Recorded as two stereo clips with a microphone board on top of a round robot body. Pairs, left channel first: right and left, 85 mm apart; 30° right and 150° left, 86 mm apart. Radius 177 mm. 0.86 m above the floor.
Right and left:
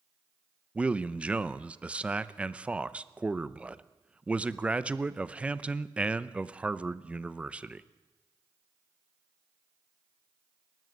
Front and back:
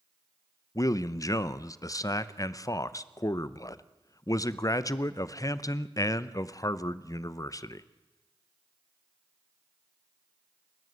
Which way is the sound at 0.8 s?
15° left.